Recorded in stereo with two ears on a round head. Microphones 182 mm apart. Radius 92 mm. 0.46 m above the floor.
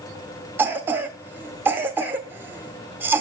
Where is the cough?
10° right (ahead or behind), 1.2 m.